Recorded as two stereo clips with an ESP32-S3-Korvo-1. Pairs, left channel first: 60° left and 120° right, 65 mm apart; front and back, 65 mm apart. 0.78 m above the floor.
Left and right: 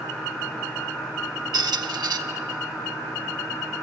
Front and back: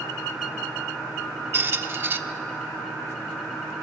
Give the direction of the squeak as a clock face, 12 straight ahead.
4 o'clock.